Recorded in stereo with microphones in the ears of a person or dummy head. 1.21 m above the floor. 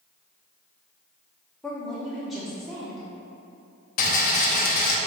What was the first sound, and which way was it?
A woman speaking, centre (ahead or behind).